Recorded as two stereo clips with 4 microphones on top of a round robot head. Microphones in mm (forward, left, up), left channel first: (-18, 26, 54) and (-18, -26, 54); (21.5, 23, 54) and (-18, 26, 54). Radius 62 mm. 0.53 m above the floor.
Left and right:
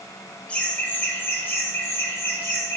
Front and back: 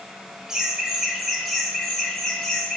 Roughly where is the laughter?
Behind left.